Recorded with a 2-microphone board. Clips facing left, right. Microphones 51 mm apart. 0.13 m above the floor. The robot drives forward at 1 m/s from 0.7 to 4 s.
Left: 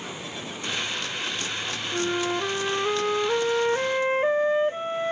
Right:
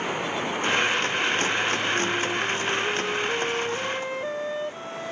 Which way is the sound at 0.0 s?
55° right (ahead or behind).